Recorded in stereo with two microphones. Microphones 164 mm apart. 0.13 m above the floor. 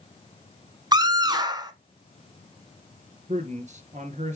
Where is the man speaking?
45° right (ahead or behind), 1.9 m.